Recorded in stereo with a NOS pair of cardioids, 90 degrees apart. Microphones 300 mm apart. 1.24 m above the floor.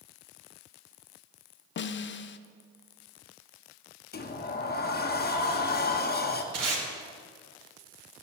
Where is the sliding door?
35° left, 1.2 m.